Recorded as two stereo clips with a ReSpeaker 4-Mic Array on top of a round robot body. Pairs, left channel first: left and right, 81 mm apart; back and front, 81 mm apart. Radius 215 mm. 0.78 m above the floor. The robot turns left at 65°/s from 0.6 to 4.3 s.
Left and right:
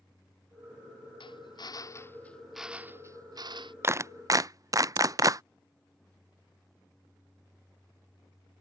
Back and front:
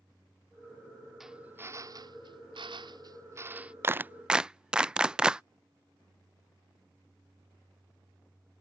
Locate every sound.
1.2 s a drill: 85° left; by 3.7 s 80° right
3.8 s a clap: 45° right; by 5.4 s 75° right